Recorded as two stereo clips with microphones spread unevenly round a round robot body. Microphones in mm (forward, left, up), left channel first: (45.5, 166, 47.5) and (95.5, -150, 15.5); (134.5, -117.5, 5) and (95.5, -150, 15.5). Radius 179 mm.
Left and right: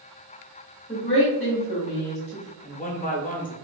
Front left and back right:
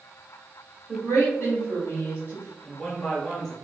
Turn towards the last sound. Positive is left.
turn(degrees=80)